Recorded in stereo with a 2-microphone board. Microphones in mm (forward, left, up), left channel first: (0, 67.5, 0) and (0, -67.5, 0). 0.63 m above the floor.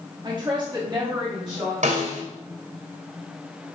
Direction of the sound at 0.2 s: 35° right (ahead or behind).